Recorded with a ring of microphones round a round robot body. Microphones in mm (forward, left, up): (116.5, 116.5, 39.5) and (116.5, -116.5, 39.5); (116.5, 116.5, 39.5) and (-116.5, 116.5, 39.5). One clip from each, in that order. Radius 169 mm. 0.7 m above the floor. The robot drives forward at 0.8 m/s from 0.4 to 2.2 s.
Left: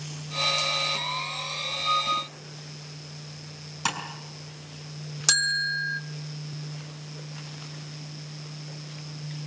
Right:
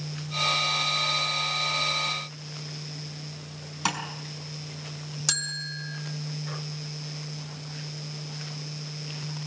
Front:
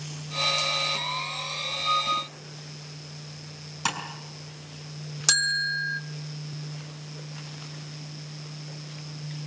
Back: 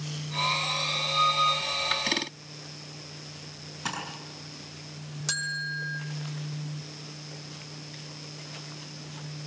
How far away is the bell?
About 1.0 m.